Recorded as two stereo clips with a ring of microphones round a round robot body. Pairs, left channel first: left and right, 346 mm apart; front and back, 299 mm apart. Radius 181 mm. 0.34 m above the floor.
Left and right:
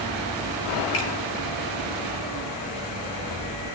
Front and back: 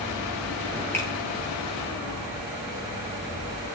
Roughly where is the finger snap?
Left.